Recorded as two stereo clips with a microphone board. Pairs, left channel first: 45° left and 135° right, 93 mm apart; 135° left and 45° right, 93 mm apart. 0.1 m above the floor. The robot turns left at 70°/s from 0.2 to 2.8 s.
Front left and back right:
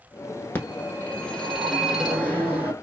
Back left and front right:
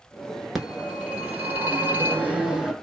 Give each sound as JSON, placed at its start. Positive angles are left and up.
{"t": 0.6, "sound": "a phone ringing", "azimuth_deg": 35, "distance_m": 0.8}